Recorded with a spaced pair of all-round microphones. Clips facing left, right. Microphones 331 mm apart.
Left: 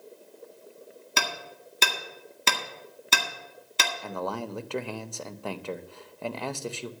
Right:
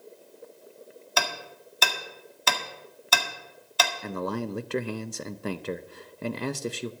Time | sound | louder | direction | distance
1.2 | hammering | right 2 dB | 35° left (ahead or behind) | 1.7 m
4.0 | a man speaking | right 2 dB | 25° right (ahead or behind) | 0.6 m